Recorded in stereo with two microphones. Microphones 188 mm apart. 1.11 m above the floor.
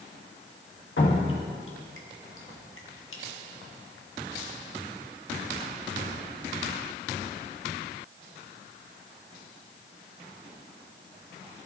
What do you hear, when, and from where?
1.0 s dripping: 85° left, 1.3 m